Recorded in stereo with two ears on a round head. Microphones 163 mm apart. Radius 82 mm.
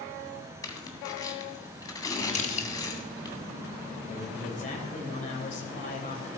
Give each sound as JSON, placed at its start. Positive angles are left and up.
{"t": 0.6, "sound": "tearing paper", "side_deg": 20, "distance_m": 2.0}
{"t": 2.4, "sound": "crushing", "side_deg": 40, "distance_m": 1.2}
{"t": 4.1, "sound": "a man speaking", "side_deg": 40, "distance_m": 3.0}